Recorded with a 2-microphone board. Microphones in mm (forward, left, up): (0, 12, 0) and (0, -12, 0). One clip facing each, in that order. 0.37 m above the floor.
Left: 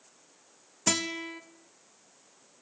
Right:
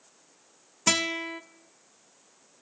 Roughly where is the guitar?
Right.